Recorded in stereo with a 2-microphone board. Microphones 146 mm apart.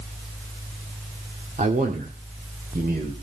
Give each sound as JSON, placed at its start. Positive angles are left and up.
{"t": 1.6, "sound": "a man speaking", "side_deg": -50, "distance_m": 1.7}